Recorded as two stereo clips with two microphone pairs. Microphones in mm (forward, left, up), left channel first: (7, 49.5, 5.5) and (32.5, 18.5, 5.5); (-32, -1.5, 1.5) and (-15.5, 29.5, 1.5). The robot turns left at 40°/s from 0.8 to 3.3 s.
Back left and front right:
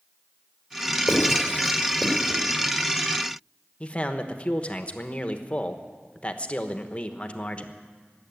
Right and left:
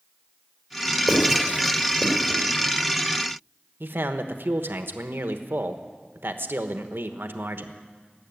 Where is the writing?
115° left, 3.5 m; by 2.4 s 65° left, 3.5 m.